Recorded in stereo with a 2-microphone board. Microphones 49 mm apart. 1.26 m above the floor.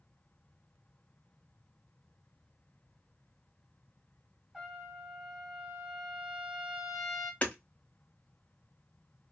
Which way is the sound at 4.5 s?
5° right (ahead or behind).